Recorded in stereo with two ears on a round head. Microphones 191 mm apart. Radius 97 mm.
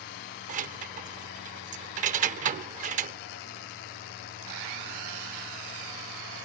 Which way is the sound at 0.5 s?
35° right (ahead or behind).